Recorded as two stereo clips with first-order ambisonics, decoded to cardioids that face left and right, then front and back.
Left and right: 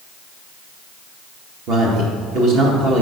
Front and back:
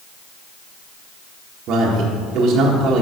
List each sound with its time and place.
1.7 s a man speaking: 135° right, 1.5 m